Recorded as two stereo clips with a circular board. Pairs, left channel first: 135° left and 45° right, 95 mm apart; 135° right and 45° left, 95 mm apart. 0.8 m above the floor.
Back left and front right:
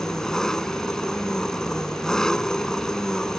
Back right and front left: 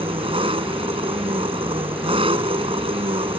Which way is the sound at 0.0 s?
50° left.